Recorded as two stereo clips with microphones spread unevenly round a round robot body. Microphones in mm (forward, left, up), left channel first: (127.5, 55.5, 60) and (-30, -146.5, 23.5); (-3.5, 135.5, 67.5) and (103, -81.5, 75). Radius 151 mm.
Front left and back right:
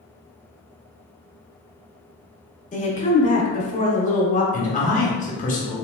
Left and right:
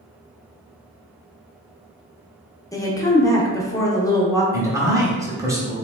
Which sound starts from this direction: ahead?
A man speaking, at 4.5 s.